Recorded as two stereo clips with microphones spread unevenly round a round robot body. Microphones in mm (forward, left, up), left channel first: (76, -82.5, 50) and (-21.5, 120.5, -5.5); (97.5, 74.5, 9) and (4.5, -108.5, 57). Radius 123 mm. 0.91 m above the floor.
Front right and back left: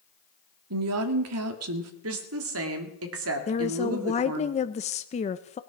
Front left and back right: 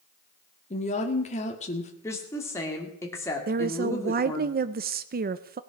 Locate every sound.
0.7 s a woman speaking: 125° left, 1.6 m
2.0 s a woman speaking: 140° left, 2 m
3.5 s a woman speaking: 125° right, 0.5 m